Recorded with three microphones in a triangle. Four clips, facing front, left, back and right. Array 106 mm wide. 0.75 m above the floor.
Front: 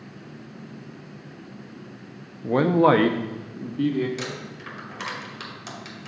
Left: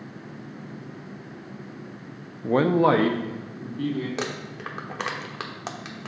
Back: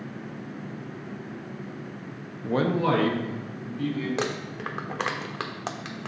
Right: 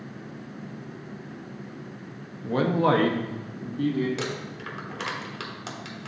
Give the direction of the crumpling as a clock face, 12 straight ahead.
7 o'clock.